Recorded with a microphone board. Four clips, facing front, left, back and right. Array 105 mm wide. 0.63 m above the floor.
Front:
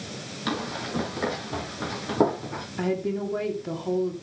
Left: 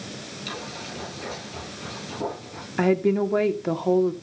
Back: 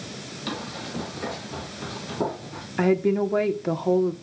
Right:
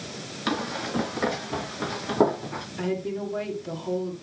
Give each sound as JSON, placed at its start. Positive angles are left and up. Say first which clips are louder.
{"t": 0.5, "sound": "running footsteps", "louder": "right 9 dB, front 4 dB", "azimuth_deg": -65, "distance_m": 5.5}
{"t": 2.8, "sound": "a woman speaking", "louder": "left 9 dB, back 6 dB", "azimuth_deg": 130, "distance_m": 1.4}